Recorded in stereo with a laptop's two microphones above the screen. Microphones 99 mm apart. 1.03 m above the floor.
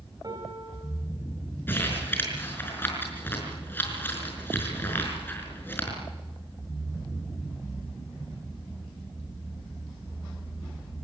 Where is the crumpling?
20° left (ahead or behind), 5.5 m.